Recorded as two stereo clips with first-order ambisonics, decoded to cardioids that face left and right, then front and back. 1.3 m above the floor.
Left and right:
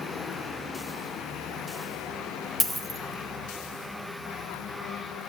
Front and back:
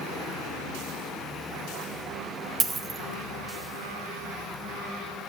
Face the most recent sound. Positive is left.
turn(degrees=155)